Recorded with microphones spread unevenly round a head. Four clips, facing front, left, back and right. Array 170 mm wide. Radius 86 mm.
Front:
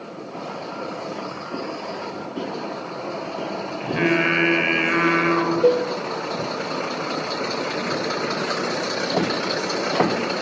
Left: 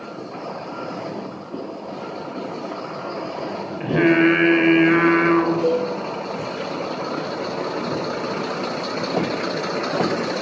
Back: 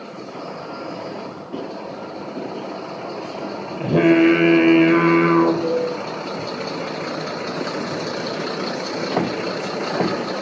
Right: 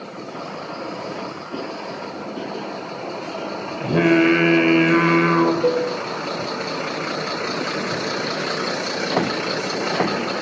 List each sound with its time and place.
3.8 s singing: 165° right, 4 m
5.6 s a cowbell: 10° right, 7.5 m